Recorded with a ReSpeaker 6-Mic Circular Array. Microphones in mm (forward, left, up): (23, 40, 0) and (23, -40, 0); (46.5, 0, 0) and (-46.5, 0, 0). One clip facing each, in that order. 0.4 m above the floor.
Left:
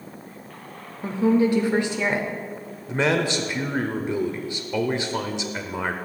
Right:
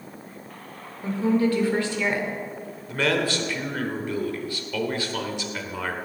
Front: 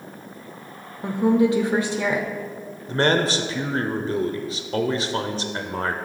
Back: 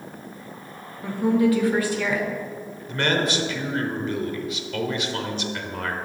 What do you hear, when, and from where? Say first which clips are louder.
1.0 s a woman speaking: left 2 dB, front 1 dB; 40° left, 0.9 m
2.9 s a man speaking: left 2 dB, front 3 dB; 30° left, 1.0 m